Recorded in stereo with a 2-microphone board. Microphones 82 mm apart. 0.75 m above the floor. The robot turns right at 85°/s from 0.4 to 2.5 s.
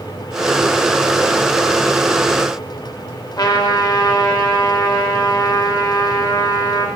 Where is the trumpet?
55° left (ahead or behind), 0.7 m.